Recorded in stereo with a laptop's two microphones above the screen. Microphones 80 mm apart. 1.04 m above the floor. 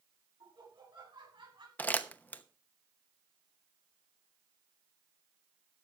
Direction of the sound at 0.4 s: 80° right.